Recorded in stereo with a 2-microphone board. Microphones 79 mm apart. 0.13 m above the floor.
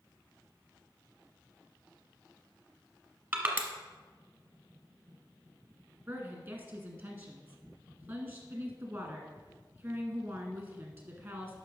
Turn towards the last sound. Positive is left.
turn(degrees=-25)  # may be behind; listen again after turning